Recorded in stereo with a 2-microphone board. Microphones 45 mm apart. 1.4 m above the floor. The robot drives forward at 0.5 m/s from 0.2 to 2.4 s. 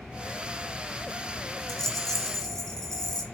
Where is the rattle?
10° left (ahead or behind), 0.5 m; by 3.2 s 5° left (ahead or behind), 0.9 m.